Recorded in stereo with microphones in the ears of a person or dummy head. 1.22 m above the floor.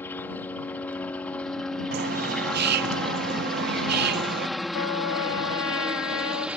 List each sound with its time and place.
0.0 s a helicopter: 10° left (ahead or behind); by 6.6 s 5° right (ahead or behind)
1.9 s a bird: 55° right (ahead or behind)
4.7 s a trumpet: 80° left